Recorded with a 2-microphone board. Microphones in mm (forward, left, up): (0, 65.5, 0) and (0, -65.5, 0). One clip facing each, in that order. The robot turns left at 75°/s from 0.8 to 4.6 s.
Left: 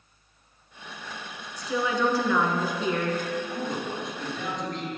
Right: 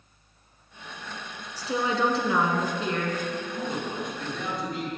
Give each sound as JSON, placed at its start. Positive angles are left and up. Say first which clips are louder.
{"t": 1.6, "sound": "a woman speaking", "louder": "even", "azimuth_deg": -85, "distance_m": 1.2}
{"t": 3.5, "sound": "a man speaking", "louder": "even", "azimuth_deg": 75, "distance_m": 3.0}